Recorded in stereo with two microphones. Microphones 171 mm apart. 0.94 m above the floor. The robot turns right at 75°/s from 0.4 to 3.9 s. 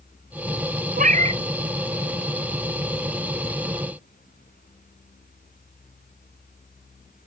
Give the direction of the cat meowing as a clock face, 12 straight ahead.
2 o'clock.